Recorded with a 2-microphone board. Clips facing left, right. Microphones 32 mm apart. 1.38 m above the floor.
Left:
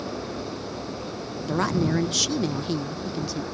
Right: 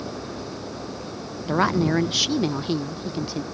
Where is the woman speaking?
20° right (ahead or behind).